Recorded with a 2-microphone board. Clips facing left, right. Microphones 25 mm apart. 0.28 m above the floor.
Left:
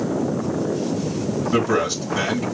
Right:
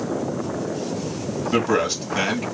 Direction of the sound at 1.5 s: 20° right (ahead or behind).